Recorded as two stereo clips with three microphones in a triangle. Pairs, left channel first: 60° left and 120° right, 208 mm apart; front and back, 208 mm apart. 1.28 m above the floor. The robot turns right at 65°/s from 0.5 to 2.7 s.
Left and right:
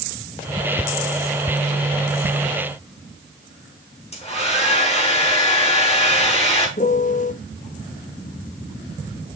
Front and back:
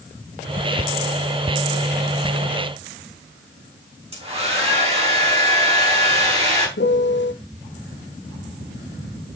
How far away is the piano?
About 0.6 m.